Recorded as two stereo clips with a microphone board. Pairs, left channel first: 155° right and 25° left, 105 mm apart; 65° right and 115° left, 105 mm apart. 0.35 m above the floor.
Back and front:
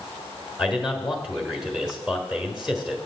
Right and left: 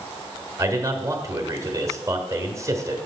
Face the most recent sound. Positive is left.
turn(degrees=105)